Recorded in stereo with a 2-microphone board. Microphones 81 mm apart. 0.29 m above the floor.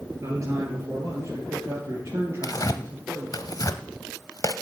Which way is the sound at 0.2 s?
45° right (ahead or behind).